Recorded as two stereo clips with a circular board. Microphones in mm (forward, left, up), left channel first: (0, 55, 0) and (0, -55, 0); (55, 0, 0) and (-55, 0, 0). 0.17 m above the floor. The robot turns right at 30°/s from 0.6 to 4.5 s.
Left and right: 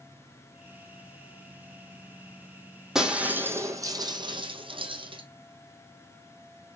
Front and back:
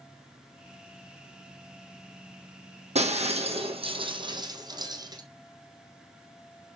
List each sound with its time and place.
3.0 s breaking glass: 175° right, 1.3 m; by 5.2 s 130° right, 1.3 m